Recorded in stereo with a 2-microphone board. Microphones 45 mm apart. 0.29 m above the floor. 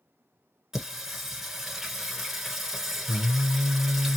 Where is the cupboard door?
I don't hear a cupboard door.